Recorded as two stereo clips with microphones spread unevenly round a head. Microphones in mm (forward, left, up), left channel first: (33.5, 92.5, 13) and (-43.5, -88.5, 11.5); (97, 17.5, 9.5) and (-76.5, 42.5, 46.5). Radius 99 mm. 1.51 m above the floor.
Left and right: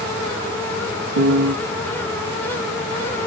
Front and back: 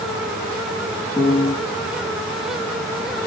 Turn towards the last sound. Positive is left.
turn(degrees=-95)